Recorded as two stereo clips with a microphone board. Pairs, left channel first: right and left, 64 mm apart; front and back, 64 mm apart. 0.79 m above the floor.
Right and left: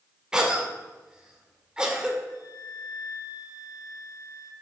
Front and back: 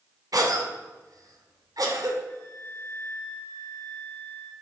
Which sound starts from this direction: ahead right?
A flute, at 2.3 s.